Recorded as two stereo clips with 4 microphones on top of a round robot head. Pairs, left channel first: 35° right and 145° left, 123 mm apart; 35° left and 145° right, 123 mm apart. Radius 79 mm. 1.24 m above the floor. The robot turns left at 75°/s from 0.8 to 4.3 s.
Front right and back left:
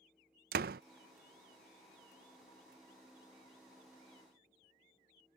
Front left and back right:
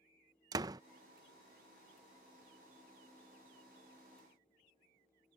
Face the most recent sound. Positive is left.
turn(degrees=-110)